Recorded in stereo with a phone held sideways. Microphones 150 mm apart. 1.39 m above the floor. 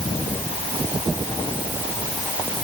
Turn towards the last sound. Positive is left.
No sound to turn to.